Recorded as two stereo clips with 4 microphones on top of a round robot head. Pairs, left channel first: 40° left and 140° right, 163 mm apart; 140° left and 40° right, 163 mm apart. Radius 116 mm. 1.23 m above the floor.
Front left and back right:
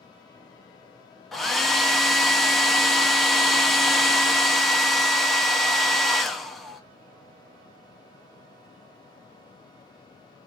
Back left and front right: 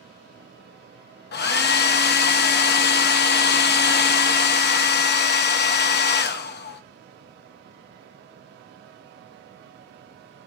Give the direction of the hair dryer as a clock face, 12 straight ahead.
8 o'clock.